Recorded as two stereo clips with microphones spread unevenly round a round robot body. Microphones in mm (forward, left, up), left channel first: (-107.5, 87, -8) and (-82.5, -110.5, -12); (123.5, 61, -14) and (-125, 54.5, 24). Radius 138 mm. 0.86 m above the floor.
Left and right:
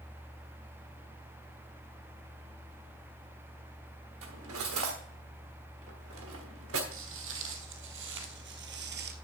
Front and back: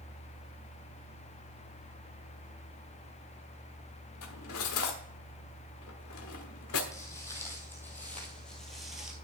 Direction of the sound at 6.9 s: 80° right.